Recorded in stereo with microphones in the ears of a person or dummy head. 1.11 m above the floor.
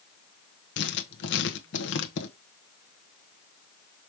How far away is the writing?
About 1.2 m.